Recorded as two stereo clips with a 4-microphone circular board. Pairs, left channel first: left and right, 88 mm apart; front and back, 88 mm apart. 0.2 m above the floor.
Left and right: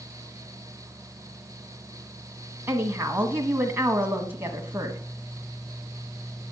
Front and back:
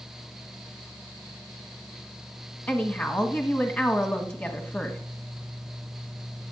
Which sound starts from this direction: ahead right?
A woman speaking, at 2.7 s.